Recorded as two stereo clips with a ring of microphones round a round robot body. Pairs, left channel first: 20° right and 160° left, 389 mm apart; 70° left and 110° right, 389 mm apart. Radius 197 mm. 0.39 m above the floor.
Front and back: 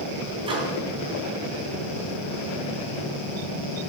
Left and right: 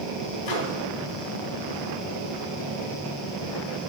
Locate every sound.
0.5 s a microwave: 80° left, 3 m